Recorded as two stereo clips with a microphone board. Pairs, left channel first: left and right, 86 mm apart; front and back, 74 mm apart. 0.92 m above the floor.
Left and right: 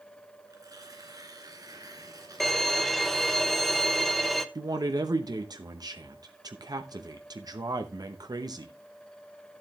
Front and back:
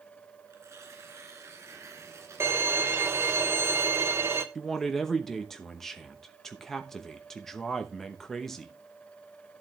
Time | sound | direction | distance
0.5 | tearing paper | 130° right | 2.5 m
2.4 | a violin | 175° left | 0.9 m
4.5 | a man speaking | 85° right | 0.9 m